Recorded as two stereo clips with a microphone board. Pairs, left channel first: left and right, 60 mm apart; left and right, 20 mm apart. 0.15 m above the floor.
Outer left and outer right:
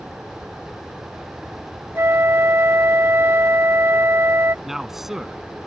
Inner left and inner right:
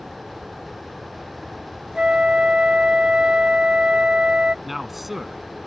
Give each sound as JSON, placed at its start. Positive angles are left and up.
{"t": 1.9, "sound": "a flute", "side_deg": -45}
{"t": 4.7, "sound": "a man speaking", "side_deg": -5}